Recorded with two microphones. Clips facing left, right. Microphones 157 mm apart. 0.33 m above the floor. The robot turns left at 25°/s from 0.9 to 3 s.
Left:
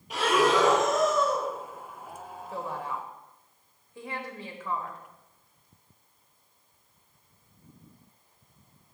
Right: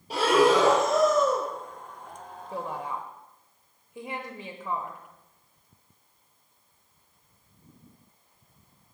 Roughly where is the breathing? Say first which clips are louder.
Right 3 dB; right.